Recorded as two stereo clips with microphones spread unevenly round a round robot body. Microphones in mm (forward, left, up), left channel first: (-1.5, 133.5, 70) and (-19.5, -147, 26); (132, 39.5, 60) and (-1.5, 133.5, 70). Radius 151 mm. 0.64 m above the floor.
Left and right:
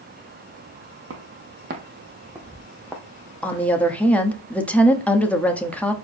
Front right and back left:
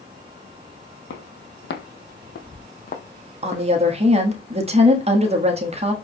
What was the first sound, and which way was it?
Footsteps, 45° right.